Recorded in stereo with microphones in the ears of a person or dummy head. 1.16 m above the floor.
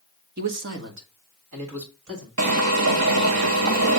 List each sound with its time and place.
0.4 s a man speaking: 45° right (ahead or behind), 0.8 m; by 2.3 s 80° right, 3 m
2.4 s a drill: 75° right (ahead or behind), 1.2 m